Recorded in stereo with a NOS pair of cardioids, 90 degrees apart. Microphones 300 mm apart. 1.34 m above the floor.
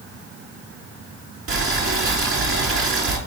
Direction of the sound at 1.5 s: 45° right.